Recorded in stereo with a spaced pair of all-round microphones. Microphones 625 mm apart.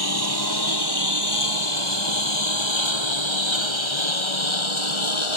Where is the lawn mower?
35° left (ahead or behind); by 5.4 s 50° left (ahead or behind).